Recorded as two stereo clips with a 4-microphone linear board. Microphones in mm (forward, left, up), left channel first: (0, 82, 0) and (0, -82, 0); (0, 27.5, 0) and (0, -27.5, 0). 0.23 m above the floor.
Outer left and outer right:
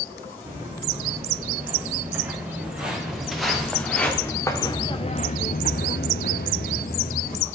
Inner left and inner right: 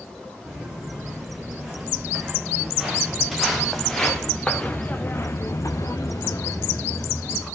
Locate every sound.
0.5 s footsteps: 15° right (ahead or behind), 4.5 m; by 7.5 s 55° left (ahead or behind), 2.0 m